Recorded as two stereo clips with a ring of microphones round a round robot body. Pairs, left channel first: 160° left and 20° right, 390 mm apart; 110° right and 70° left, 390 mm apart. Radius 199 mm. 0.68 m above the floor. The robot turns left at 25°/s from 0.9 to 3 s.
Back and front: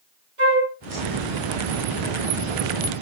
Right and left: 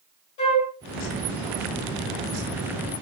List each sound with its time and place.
0.4 s a flute: 75° right, 2 m